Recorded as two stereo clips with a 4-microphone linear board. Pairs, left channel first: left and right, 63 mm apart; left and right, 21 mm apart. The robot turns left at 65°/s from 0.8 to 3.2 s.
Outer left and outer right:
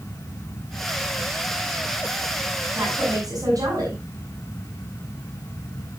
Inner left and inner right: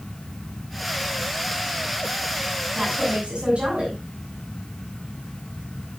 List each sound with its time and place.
2.7 s a woman speaking: 35° right, 7.5 m; by 4.0 s 70° right, 7.5 m